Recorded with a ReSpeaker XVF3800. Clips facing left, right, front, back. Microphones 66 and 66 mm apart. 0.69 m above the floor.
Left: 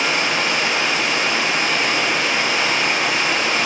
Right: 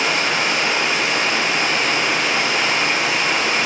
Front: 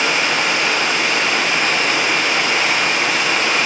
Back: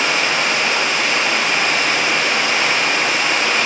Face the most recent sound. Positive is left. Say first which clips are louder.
# even, even
turn(degrees=-100)